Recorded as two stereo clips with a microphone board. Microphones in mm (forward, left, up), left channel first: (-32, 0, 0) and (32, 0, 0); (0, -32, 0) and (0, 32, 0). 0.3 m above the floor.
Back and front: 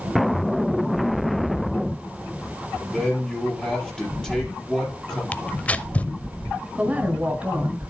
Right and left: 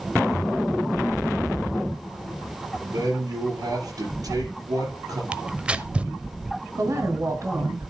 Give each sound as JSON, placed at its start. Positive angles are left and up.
{"t": 2.8, "sound": "a man speaking", "azimuth_deg": 105, "distance_m": 6.0}
{"t": 5.3, "sound": "tearing paper", "azimuth_deg": 140, "distance_m": 0.6}
{"t": 6.8, "sound": "a woman speaking", "azimuth_deg": 65, "distance_m": 2.0}